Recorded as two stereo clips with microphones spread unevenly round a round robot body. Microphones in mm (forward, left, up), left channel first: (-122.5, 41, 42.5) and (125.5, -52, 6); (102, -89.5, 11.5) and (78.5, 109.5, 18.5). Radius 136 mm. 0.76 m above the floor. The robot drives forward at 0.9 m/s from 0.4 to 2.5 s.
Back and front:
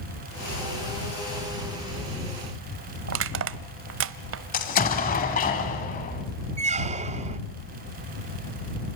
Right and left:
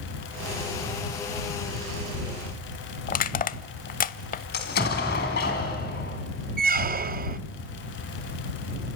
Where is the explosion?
140° right, 2.5 m.